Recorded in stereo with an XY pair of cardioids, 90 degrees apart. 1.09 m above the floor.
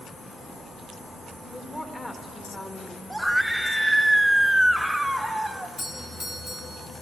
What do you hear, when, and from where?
1.4 s a woman speaking: 25° left, 1.6 m
3.1 s a scream: 5° right, 0.8 m
5.8 s a doorbell: 45° left, 1.7 m